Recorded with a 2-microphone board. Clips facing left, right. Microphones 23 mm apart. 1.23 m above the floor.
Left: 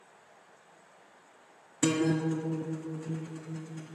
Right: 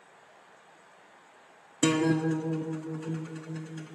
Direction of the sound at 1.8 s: 60° right (ahead or behind).